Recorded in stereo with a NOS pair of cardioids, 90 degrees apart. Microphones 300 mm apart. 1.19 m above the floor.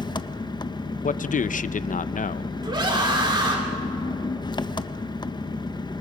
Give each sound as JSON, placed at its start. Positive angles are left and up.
{"t": 0.0, "sound": "an engine running", "azimuth_deg": 15, "distance_m": 0.9}
{"t": 1.0, "sound": "a man speaking", "azimuth_deg": 25, "distance_m": 0.7}
{"t": 2.6, "sound": "a scream", "azimuth_deg": -15, "distance_m": 3.0}